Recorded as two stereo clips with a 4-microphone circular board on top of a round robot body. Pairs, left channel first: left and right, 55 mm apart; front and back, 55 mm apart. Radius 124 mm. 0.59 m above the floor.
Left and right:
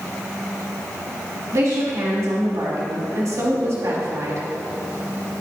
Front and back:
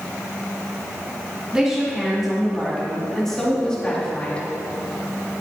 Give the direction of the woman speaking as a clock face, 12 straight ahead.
3 o'clock.